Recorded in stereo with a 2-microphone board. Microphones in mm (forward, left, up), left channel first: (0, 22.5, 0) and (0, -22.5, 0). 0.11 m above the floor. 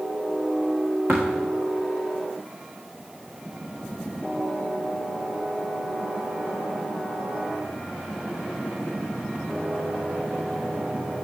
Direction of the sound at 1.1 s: 60° right (ahead or behind).